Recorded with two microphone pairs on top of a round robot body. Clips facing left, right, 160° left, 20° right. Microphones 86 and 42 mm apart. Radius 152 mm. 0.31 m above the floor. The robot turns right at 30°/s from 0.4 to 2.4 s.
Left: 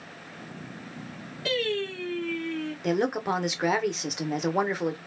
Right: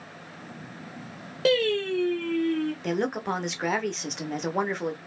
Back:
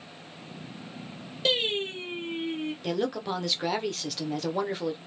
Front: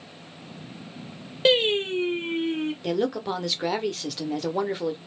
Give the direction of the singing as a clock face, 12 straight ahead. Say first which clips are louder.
Right 6 dB, front 6 dB; 2 o'clock.